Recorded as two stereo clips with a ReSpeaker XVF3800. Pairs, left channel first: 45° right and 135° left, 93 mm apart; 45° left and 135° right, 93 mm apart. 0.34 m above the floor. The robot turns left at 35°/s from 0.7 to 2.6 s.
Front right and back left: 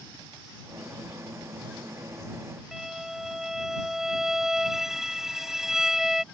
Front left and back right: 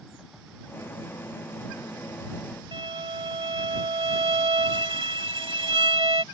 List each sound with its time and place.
2.7 s a violin: 140° right